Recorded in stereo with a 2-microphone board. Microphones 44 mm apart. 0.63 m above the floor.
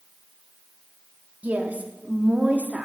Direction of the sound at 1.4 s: 40° right (ahead or behind).